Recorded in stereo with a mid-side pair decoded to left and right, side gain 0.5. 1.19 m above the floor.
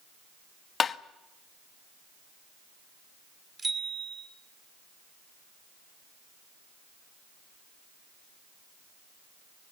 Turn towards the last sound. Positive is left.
turn(degrees=-25)